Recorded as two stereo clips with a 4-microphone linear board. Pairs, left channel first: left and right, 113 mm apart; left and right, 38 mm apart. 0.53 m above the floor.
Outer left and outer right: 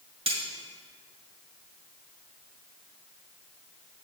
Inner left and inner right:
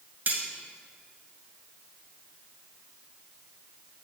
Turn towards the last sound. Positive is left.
turn(degrees=-60)  # may be behind; listen again after turning